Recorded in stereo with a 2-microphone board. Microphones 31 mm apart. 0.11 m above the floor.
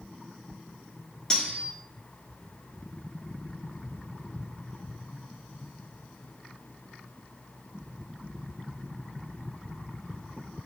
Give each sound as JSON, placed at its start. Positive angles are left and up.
{"t": 1.3, "sound": "cutlery clinking", "side_deg": 25, "distance_m": 0.7}